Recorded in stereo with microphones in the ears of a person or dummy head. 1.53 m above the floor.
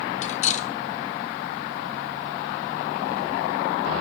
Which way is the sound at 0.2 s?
40° left (ahead or behind).